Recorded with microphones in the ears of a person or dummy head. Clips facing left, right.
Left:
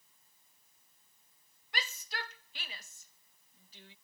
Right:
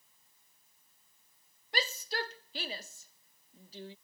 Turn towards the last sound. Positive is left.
turn(degrees=-30)  # may be behind; listen again after turning